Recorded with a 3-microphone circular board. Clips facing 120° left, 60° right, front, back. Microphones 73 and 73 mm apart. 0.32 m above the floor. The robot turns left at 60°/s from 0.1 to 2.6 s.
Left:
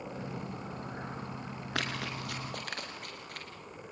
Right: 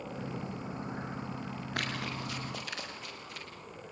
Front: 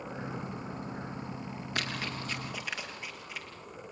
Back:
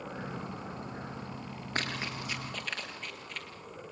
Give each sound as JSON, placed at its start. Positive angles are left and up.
{"t": 1.8, "sound": "running footsteps", "azimuth_deg": 130, "distance_m": 8.0}